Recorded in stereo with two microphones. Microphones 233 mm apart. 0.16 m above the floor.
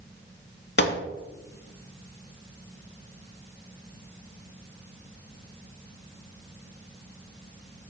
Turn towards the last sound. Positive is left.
turn(degrees=50)  # may be behind; listen again after turning